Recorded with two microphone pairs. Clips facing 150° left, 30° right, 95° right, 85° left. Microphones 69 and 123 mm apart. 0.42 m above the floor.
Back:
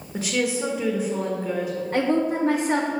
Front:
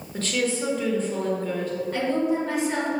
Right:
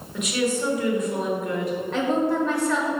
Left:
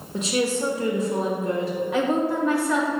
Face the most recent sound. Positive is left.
turn(degrees=165)